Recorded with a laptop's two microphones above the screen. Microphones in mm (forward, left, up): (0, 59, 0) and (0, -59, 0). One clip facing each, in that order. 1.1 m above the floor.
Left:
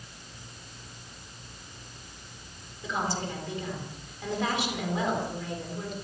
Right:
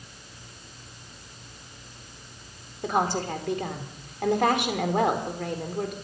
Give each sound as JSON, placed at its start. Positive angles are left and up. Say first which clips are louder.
{"t": 2.8, "sound": "a woman speaking", "louder": "right 6 dB", "side_deg": -60, "distance_m": 3.0}